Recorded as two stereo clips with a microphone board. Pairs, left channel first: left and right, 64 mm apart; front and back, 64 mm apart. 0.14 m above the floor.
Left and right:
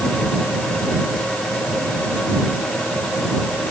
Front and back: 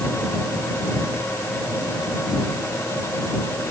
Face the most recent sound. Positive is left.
No sound to turn to.